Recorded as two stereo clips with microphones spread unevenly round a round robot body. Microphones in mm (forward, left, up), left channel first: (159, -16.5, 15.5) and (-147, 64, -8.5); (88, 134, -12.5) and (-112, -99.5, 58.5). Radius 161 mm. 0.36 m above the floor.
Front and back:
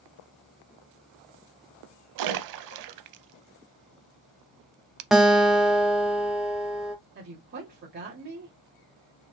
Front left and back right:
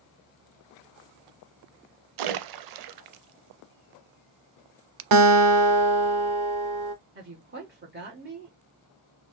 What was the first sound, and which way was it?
A splash, 155° right.